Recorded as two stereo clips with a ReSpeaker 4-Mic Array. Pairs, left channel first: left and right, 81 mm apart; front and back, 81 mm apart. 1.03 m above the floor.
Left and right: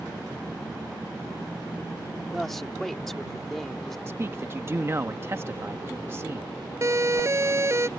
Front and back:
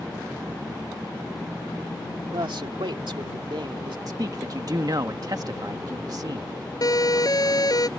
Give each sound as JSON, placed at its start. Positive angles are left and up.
{"t": 2.3, "sound": "a man speaking", "azimuth_deg": 175}
{"t": 4.1, "sound": "a man speaking", "azimuth_deg": -145}
{"t": 6.8, "sound": "a siren", "azimuth_deg": -35}